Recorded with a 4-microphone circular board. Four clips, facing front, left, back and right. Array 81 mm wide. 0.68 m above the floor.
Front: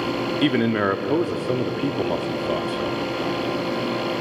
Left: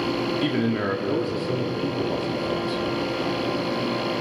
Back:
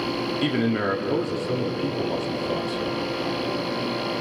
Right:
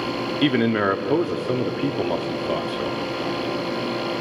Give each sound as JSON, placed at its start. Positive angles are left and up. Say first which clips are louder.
{"t": 0.4, "sound": "a man speaking", "louder": "right 8 dB, front 4 dB", "azimuth_deg": -50, "distance_m": 1.4}